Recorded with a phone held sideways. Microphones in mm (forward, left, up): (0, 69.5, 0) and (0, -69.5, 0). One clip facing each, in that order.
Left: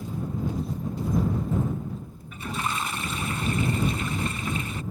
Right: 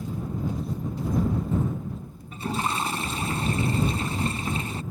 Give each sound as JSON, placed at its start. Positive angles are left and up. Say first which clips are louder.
{"t": 2.3, "sound": "a toilet flushing", "louder": "right 3 dB", "side_deg": -35}